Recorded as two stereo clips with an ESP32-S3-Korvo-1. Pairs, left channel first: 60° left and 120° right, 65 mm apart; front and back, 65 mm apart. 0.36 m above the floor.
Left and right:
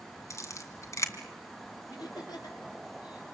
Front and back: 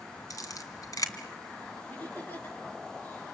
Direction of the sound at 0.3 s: 20° left.